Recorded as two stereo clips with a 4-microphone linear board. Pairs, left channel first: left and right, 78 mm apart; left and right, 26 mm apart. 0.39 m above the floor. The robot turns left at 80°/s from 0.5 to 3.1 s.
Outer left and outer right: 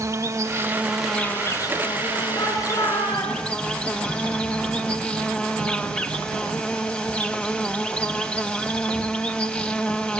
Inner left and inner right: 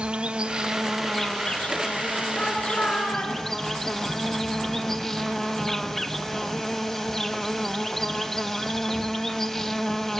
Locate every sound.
0.0 s an insect: 140° right, 1.1 m; by 10.2 s 15° left, 1.1 m
2.4 s a shout: 145° left, 4.5 m; by 3.4 s 85° left, 4.5 m